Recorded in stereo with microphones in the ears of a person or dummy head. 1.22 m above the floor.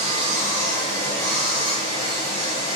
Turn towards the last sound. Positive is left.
turn(degrees=35)  # may be behind; listen again after turning